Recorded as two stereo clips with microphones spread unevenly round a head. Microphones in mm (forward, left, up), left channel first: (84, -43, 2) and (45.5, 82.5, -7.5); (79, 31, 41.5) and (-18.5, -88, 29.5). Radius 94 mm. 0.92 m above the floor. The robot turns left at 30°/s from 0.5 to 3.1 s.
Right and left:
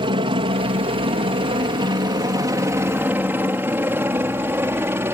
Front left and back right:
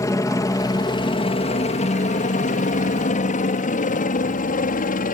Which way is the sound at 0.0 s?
110° left.